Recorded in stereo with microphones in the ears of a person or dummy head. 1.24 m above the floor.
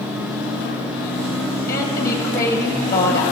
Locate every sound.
1.7 s a woman speaking: 20° left (ahead or behind), 1.6 m